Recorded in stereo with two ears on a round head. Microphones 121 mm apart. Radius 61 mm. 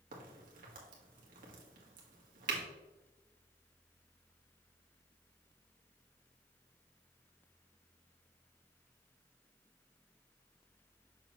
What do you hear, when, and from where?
0.1 s a crack: 75° right (ahead or behind), 1.7 m